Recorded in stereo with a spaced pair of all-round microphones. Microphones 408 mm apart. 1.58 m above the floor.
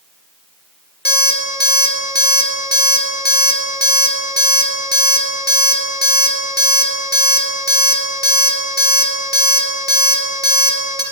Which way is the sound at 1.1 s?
25° left (ahead or behind).